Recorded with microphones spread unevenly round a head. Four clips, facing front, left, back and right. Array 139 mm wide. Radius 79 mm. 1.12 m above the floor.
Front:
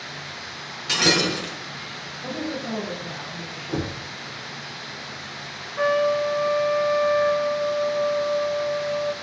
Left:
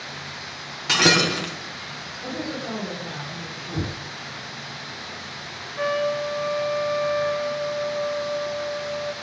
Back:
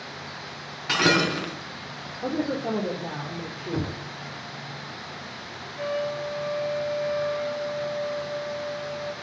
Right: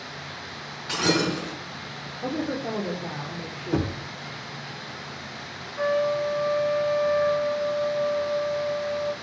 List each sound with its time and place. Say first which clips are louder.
0.9 s breaking glass: left 3 dB, back 1 dB; 105° left, 4 m
2.2 s a woman speaking: right 3 dB, back 3 dB; 150° right, 3.5 m
3.7 s knocking: right 5 dB, front 2 dB; 75° right, 2 m
5.8 s a trumpet: even, front 8 dB; straight ahead, 0.6 m